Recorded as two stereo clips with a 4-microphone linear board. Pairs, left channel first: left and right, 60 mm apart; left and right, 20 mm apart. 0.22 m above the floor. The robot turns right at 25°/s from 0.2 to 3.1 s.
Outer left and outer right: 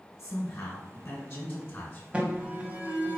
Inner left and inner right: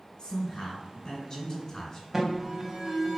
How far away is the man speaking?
About 1.8 m.